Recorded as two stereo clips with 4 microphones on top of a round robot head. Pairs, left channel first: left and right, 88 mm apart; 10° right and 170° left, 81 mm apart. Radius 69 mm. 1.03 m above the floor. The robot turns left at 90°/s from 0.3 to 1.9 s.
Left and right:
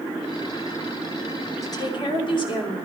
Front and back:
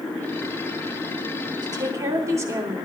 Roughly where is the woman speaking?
Behind left.